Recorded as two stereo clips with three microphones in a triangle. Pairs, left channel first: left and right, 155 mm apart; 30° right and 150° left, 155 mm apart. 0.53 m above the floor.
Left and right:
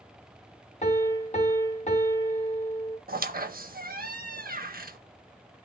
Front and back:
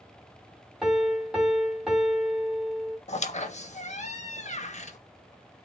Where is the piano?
65° left, 0.9 m.